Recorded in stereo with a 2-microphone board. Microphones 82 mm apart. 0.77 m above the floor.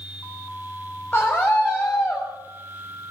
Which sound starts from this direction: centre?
A scream, at 1.1 s.